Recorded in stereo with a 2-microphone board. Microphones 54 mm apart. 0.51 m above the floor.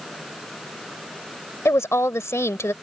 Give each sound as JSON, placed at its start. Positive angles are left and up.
{"t": 1.6, "sound": "a woman speaking", "side_deg": 65}